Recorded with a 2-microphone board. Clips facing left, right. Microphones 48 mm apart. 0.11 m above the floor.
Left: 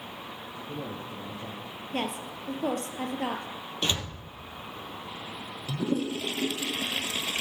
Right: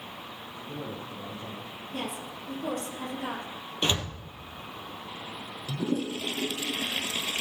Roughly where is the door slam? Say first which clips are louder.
Right 2 dB; centre.